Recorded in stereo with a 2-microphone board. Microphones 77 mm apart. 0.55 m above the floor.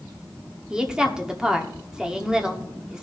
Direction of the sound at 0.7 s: 10° right (ahead or behind).